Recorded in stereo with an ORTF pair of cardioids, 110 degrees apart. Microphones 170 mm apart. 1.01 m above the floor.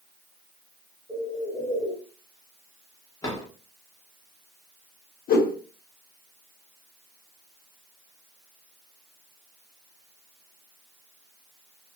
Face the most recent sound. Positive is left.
turn(degrees=60)